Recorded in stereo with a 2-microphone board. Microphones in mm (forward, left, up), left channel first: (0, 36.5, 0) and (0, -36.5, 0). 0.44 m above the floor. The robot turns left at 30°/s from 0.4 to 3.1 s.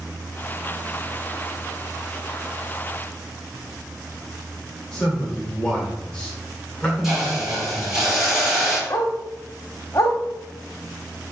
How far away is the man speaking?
About 1.7 m.